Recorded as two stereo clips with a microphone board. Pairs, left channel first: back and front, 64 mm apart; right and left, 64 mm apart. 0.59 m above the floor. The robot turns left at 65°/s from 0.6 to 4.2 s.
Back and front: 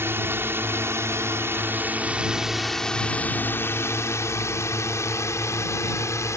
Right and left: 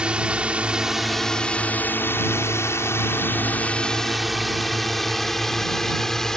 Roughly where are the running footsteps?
No running footsteps in this recording.